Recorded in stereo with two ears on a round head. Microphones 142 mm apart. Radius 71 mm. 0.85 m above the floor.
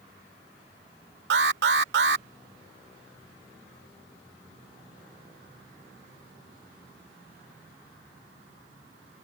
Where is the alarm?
75° right (ahead or behind).